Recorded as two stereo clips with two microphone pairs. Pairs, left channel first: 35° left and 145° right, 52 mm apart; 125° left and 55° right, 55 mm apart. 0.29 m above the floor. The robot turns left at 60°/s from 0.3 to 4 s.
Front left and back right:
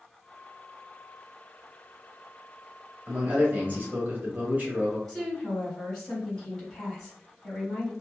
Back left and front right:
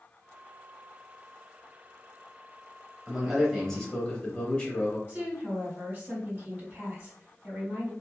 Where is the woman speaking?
35° right, 1.7 m.